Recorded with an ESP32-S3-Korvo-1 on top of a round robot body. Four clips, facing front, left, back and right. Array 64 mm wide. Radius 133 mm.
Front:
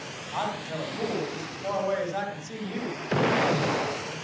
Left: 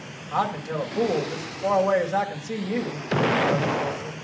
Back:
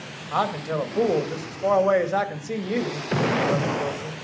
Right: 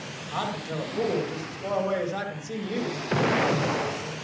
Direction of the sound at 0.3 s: 155° left.